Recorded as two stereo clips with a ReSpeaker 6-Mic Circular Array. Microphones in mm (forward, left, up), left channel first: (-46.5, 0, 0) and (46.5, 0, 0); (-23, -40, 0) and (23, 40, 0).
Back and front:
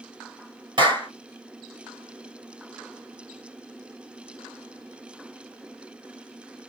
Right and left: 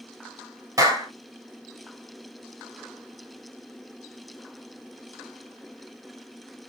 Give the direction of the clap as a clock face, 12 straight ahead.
12 o'clock.